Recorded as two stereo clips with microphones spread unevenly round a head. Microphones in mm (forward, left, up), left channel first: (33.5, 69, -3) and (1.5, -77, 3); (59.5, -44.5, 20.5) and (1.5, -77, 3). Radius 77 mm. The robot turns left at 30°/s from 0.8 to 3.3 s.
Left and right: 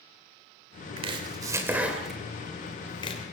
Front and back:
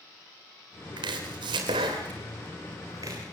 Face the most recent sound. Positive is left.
turn(degrees=130)